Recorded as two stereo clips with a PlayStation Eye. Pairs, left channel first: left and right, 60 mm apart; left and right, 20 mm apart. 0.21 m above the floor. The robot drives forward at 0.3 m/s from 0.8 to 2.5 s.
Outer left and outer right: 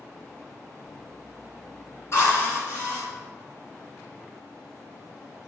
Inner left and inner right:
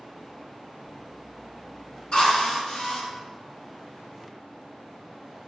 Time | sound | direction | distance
2.1 | a drill | 45° left (ahead or behind) | 1.9 m